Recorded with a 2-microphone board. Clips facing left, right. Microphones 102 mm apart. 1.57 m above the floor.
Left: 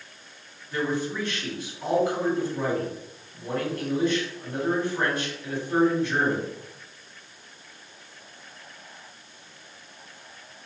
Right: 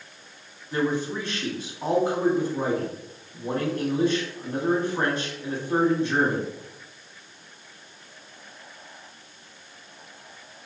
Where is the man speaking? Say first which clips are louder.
Right 2 dB; 25° right (ahead or behind), 1.6 m.